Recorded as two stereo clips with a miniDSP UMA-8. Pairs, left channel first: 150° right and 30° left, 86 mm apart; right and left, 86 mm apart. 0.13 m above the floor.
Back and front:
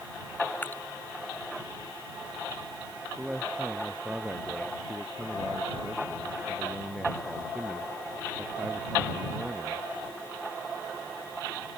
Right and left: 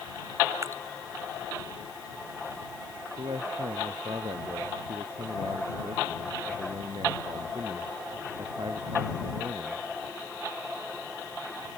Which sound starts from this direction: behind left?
Dripping, at 0.6 s.